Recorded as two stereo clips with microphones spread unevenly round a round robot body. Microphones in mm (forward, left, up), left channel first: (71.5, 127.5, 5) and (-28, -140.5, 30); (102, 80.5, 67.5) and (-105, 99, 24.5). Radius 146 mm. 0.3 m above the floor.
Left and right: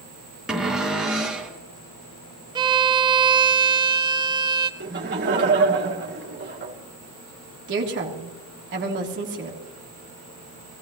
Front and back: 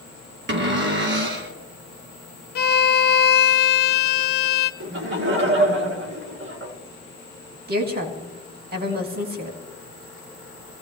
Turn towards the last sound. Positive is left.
turn(degrees=-160)